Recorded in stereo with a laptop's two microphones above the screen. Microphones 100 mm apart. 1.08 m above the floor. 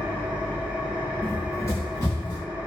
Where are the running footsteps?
20° left (ahead or behind), 1.0 m; by 2.4 s 45° left (ahead or behind), 2 m.